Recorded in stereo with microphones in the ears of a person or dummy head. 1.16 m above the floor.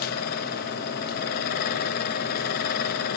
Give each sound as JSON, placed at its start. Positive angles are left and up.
{"t": 0.0, "sound": "a fan", "side_deg": 50, "distance_m": 0.7}